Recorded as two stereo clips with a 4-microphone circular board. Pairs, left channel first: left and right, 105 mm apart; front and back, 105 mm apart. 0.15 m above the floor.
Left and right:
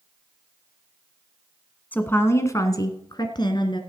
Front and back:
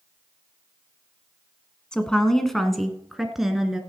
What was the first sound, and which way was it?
A woman speaking, 65° left.